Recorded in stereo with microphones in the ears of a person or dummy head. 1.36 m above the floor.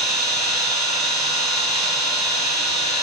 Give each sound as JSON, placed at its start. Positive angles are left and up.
{"t": 0.0, "sound": "an engine running", "side_deg": 35, "distance_m": 2.5}